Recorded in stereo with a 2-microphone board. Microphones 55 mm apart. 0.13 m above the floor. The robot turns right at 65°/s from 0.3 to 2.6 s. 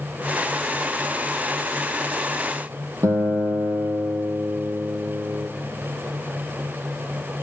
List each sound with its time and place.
3.0 s a guitar: 75° right (ahead or behind), 1.1 m